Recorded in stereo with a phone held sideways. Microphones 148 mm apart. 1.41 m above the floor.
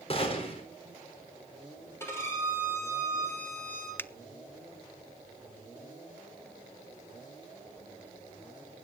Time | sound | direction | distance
0.1 | a gunshot | 40° left (ahead or behind) | 4 m
2.0 | a violin | 15° left (ahead or behind) | 6.5 m
4.0 | a finger snap | 15° left (ahead or behind) | 0.5 m